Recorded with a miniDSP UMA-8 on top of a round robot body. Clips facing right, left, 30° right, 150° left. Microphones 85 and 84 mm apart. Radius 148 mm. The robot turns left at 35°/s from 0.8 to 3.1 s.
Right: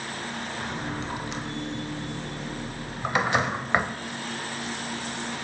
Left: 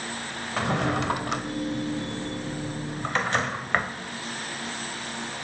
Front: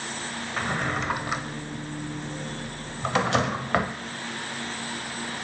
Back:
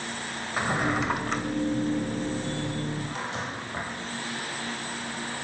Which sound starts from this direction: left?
A drawer, at 0.6 s.